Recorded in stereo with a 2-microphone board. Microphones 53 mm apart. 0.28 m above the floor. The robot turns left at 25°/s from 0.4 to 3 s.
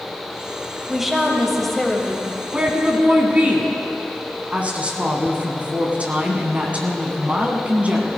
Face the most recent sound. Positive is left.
turn(degrees=-25)  # may be behind; listen again after turning